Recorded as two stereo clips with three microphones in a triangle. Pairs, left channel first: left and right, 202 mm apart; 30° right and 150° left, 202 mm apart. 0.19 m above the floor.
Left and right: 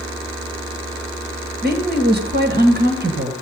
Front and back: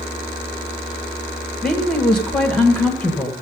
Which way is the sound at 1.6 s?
115° right.